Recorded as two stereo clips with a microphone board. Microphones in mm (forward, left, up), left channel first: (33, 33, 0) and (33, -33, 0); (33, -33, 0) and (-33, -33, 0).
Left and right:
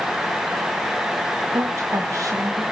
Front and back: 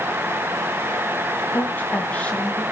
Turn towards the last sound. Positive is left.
turn(degrees=-75)